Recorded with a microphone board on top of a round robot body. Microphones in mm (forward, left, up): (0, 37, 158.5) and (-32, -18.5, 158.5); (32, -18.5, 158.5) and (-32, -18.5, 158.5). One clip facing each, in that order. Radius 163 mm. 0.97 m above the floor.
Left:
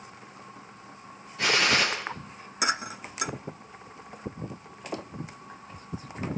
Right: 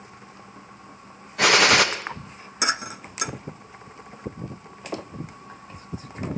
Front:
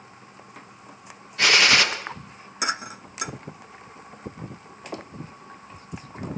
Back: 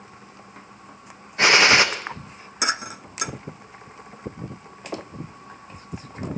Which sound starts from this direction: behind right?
A gunshot, at 1.4 s.